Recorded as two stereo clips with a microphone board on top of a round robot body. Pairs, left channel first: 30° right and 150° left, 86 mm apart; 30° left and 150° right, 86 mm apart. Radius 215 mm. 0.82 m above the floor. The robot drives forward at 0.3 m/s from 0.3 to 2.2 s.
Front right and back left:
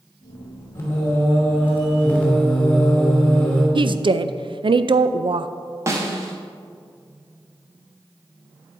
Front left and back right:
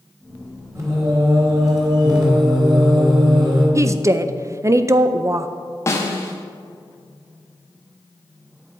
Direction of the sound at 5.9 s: 90° left.